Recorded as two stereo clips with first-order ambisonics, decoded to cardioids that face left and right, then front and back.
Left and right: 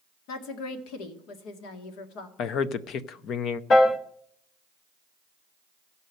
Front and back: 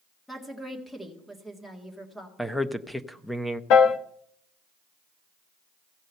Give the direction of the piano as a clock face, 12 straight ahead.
11 o'clock.